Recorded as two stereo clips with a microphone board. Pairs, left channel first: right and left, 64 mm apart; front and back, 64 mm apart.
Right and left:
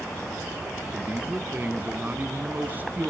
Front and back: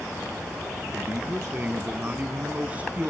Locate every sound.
0.9 s a man speaking: 130° left, 1.3 m